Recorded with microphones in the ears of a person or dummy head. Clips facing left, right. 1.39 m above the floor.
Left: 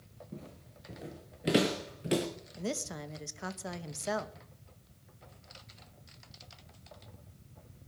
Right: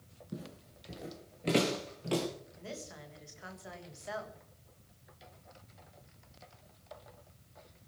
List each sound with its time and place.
0.3 s footsteps: 10° right (ahead or behind), 1.5 m; by 2.3 s 20° left (ahead or behind), 1.9 m
2.6 s a woman speaking: 60° left (ahead or behind), 1.3 m